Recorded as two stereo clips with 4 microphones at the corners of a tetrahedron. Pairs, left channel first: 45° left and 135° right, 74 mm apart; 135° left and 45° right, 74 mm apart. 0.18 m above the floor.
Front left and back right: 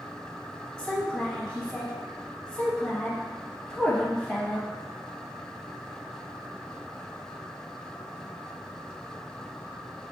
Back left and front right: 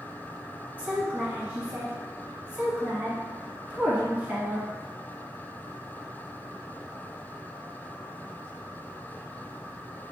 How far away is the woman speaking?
About 1.0 m.